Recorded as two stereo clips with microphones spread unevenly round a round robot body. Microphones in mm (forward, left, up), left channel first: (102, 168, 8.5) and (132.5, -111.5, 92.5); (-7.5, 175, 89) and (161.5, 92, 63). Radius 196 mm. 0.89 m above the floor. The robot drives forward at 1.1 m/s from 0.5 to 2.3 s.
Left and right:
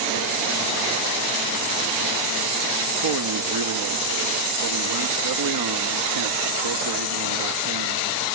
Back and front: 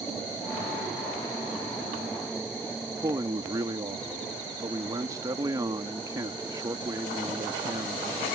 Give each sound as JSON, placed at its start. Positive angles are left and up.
{"t": 2.9, "sound": "a man speaking", "azimuth_deg": -100}